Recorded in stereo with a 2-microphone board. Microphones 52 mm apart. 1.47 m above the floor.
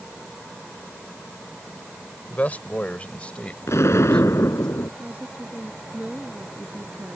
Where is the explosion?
65° left (ahead or behind).